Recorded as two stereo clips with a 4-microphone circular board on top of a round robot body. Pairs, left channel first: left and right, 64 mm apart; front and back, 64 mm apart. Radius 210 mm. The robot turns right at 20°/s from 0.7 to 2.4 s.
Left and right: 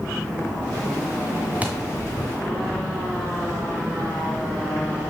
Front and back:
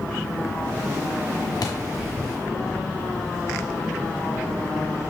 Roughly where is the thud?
Ahead right.